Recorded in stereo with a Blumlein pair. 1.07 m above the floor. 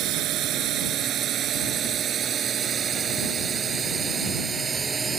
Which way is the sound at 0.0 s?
35° right.